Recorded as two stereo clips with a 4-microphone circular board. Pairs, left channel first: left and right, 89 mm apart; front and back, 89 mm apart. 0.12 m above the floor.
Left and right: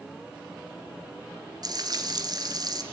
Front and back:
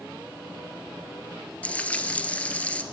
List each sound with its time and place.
1.6 s frying: 70° right, 1.9 m